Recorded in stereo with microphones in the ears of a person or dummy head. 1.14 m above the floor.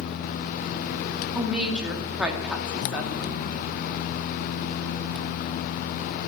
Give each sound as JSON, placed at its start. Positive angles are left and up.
{"t": 1.4, "sound": "a woman speaking", "side_deg": -5, "distance_m": 2.0}